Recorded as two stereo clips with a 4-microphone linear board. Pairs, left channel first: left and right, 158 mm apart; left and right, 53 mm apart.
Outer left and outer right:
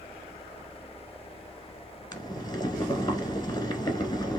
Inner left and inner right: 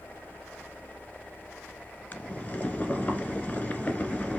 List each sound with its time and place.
2.1 s boiling: 30° left (ahead or behind), 0.9 m